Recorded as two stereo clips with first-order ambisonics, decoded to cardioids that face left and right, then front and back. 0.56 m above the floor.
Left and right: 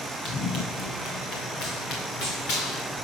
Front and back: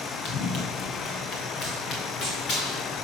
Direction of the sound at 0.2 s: 50° left.